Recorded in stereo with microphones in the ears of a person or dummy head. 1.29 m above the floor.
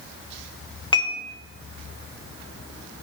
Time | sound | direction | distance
0.9 | dishes clattering | 25° left (ahead or behind) | 1.2 m